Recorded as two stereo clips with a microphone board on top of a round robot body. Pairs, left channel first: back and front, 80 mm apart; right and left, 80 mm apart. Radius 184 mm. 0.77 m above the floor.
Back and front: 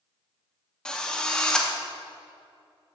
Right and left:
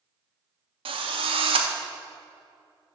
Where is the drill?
95° left, 0.6 m.